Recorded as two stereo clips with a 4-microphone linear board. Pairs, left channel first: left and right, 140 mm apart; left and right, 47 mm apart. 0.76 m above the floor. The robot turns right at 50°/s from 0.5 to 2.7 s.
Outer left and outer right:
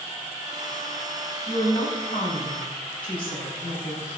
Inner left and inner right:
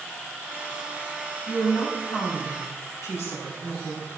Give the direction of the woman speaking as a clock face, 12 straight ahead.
11 o'clock.